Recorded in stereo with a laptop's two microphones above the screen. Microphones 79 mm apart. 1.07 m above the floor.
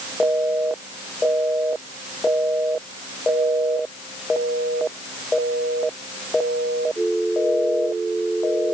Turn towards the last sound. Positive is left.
No sound to turn to.